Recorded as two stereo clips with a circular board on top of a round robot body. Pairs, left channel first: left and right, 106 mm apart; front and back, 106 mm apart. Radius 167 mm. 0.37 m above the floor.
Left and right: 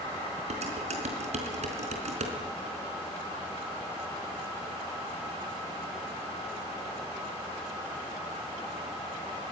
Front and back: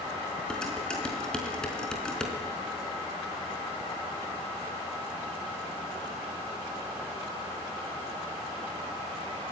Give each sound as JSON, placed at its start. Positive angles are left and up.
{"t": 0.5, "sound": "dishes clattering", "azimuth_deg": -80, "distance_m": 4.0}